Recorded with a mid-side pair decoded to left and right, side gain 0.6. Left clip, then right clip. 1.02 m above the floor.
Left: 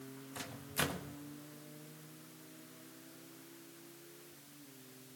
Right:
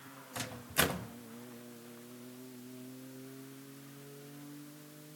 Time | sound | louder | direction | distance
0.3 | a microwave | right 6 dB | 30° right | 1.4 m